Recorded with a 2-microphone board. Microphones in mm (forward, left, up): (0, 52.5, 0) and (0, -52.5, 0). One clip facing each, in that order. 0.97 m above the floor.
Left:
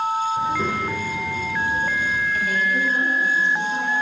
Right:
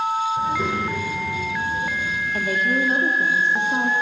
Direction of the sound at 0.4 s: 5° right (ahead or behind).